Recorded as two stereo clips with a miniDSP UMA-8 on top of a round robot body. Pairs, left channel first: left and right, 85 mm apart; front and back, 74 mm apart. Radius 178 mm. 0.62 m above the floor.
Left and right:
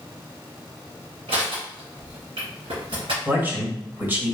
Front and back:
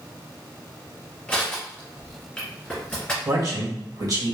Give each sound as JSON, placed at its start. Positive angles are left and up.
{"t": 1.3, "sound": "crushing", "azimuth_deg": -80, "distance_m": 1.7}
{"t": 3.2, "sound": "a man speaking", "azimuth_deg": -150, "distance_m": 1.6}